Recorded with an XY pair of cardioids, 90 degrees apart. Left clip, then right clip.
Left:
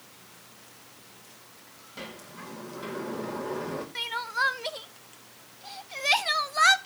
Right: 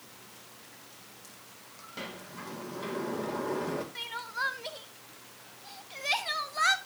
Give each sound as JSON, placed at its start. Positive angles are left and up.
{"t": 2.0, "sound": "a sliding door", "azimuth_deg": -15, "distance_m": 2.5}
{"t": 4.0, "sound": "crying", "azimuth_deg": 45, "distance_m": 0.6}